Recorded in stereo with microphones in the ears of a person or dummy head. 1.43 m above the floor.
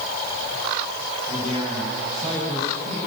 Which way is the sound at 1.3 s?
30° right (ahead or behind).